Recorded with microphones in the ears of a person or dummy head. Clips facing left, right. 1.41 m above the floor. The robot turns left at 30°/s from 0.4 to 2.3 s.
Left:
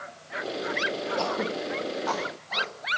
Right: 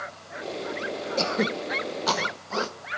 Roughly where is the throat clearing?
Right.